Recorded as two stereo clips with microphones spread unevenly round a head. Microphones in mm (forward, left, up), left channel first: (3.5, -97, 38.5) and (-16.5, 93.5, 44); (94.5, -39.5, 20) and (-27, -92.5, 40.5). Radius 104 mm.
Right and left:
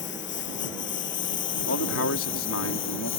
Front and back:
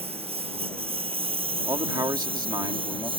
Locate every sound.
0.0 s a lawn mower: 115° right; by 3.2 s 110° right
1.7 s a man speaking: 95° right